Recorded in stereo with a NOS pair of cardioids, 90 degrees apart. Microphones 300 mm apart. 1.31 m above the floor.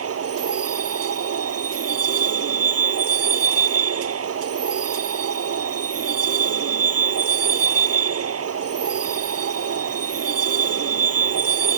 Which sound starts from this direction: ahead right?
A vehicle, at 0.0 s.